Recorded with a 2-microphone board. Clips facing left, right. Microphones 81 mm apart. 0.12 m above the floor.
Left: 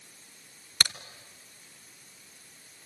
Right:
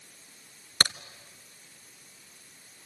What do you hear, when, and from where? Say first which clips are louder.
0.8 s a crack: right 3 dB; 35° right (ahead or behind), 1.0 m